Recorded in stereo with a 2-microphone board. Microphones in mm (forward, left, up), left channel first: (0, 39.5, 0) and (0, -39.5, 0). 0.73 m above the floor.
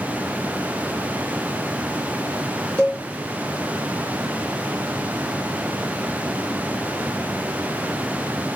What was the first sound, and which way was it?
A cowbell, 20° left (ahead or behind).